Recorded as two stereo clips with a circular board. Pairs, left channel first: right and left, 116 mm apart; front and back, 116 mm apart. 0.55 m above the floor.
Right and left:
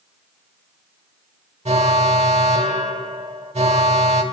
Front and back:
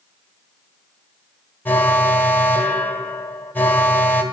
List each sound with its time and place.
1.6 s an alarm: 70° left, 1.3 m